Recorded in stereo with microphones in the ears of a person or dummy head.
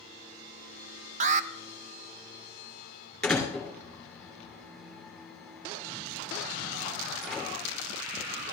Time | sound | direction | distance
1.2 | an alarm | 40° right (ahead or behind) | 0.6 m
3.2 | a door slam | 5° right (ahead or behind) | 2.5 m